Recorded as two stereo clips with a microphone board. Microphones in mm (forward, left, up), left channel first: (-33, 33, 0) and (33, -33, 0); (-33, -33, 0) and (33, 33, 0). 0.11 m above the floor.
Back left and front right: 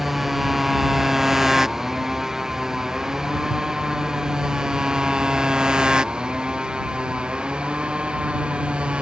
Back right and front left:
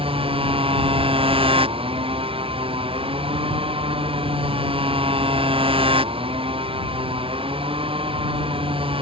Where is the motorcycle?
40° left; by 9.0 s 35° left.